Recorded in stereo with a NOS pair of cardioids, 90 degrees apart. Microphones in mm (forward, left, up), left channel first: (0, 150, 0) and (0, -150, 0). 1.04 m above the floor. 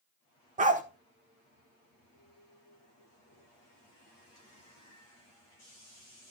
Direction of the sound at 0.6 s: 25° right.